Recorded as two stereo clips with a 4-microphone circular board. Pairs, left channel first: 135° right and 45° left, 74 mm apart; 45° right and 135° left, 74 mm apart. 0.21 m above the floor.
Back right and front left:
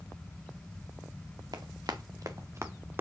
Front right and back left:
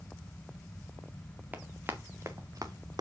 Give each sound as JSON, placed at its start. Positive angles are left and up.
{"t": 1.5, "sound": "running footsteps", "azimuth_deg": 70, "distance_m": 1.3}